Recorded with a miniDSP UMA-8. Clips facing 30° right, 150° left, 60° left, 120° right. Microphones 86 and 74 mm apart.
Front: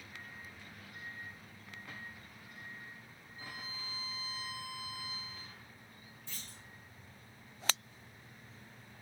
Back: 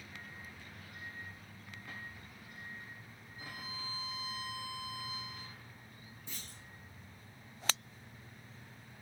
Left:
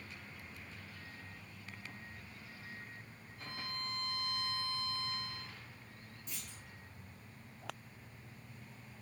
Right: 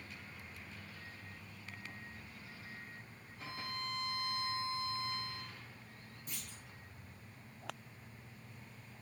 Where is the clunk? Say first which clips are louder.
Even, right 1 dB; 140° right, 0.8 m.